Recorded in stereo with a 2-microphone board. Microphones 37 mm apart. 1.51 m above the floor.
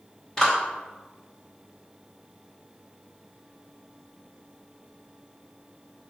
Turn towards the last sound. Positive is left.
turn(degrees=20)  # may be behind; listen again after turning